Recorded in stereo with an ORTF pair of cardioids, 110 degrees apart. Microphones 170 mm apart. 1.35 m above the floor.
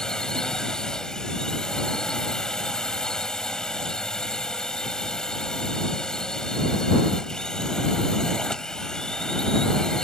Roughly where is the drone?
Ahead.